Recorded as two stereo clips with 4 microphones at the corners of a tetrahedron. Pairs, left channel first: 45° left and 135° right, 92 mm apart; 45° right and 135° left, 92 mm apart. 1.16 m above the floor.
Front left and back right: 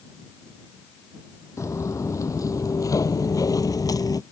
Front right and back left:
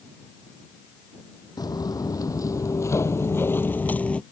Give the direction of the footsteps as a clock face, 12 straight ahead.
12 o'clock.